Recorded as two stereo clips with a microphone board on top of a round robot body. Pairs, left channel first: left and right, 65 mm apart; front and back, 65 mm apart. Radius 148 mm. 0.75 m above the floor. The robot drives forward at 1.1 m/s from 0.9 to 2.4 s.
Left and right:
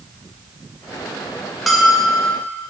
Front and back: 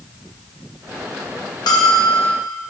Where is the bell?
Straight ahead, 1.2 m.